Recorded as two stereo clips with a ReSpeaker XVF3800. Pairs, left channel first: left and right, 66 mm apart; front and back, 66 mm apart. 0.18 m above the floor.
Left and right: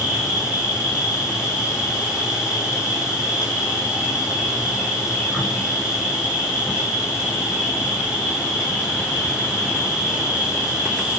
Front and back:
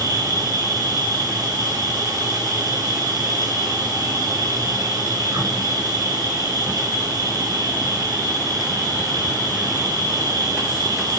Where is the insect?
170° right, 5.5 m.